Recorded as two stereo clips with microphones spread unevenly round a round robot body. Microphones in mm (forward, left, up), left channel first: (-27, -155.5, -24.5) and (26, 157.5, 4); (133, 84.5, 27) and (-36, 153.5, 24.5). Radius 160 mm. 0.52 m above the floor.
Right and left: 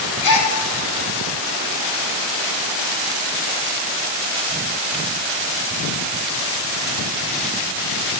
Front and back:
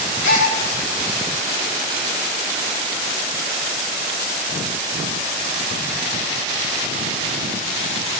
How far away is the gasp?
About 6 m.